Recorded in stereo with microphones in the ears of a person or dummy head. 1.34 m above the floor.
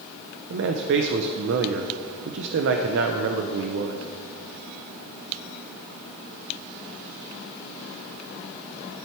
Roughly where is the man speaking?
Right.